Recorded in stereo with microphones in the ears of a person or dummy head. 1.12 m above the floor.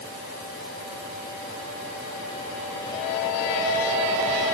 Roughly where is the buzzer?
I don't hear a buzzer.